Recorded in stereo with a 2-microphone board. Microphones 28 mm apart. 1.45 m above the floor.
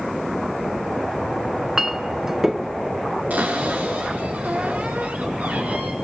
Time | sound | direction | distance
1.5 | a clink | 15° right (ahead or behind) | 0.5 m
3.3 | a cupboard door | 75° right (ahead or behind) | 4.5 m